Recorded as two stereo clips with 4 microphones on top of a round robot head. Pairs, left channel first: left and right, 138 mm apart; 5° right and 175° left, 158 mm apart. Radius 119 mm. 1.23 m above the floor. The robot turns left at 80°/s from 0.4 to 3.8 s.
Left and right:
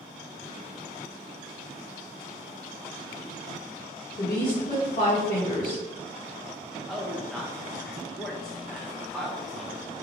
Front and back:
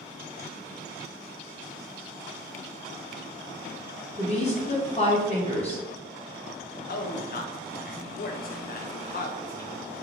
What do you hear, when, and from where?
4.2 s a woman speaking: 45° left, 1.7 m
6.9 s a man speaking: straight ahead, 0.6 m